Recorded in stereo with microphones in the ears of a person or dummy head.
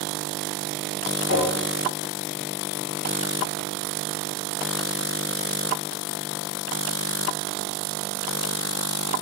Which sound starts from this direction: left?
Tapping, at 1.3 s.